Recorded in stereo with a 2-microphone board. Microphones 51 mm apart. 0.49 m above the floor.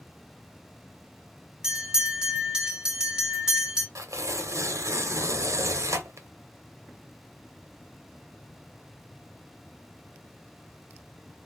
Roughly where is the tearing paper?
Right.